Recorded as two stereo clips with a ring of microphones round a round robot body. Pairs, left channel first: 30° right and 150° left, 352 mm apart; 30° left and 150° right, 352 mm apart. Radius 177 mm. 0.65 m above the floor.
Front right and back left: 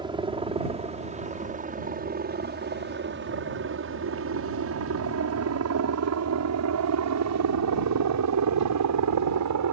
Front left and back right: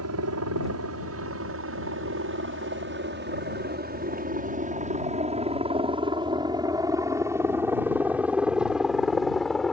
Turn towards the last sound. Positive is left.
turn(degrees=120)